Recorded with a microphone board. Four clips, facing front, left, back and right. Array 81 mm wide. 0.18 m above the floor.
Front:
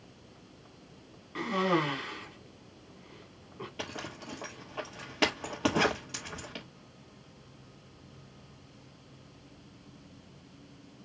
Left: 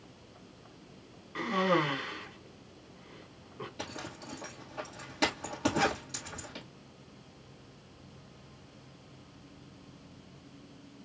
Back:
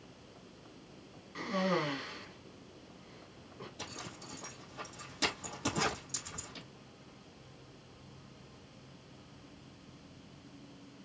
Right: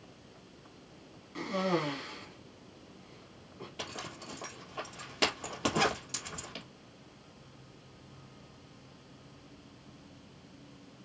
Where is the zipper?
10° right, 1.9 m.